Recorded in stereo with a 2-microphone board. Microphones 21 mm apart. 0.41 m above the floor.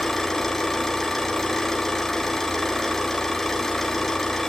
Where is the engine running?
15° left (ahead or behind), 3.5 m.